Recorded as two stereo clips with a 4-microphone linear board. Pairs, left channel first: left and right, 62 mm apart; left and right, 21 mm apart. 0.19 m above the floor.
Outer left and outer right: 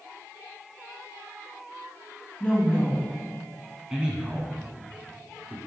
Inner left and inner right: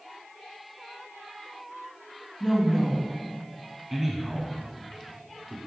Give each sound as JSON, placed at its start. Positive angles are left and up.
{"t": 2.4, "sound": "a woman speaking", "side_deg": 20, "distance_m": 1.5}
{"t": 3.9, "sound": "a man speaking", "side_deg": -15, "distance_m": 1.4}